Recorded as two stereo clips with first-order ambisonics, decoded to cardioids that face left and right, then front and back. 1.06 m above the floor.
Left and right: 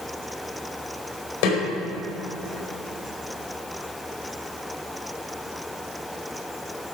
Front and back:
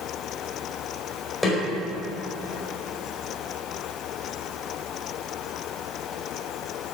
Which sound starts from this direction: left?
A snare drum, at 1.4 s.